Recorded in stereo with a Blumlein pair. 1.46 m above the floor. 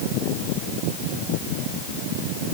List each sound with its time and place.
Only background noise.